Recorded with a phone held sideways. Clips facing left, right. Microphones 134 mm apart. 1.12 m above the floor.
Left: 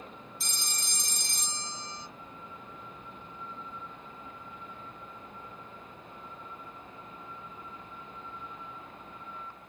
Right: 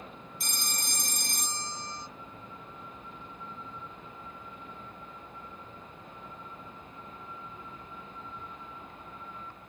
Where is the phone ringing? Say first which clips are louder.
Right 5 dB; 55° right (ahead or behind), 0.6 m.